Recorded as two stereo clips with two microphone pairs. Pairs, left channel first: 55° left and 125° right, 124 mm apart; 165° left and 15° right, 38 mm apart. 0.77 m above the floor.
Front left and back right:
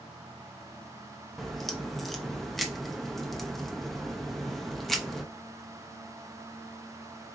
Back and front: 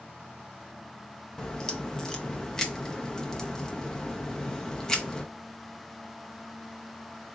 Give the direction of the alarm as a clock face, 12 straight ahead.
No alarm in this recording.